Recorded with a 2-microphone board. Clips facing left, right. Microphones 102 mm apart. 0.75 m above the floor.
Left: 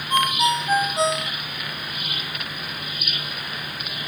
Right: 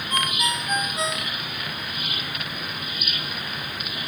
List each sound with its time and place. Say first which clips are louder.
0.1 s a ringtone: left 7 dB; 30° left (ahead or behind)